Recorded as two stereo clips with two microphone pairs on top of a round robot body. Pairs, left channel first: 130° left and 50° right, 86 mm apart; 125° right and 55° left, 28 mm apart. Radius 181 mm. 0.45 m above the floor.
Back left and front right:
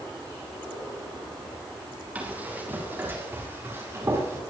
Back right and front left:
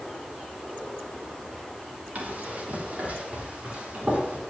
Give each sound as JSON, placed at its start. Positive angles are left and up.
{"t": 2.1, "sound": "running footsteps", "azimuth_deg": 25, "distance_m": 6.0}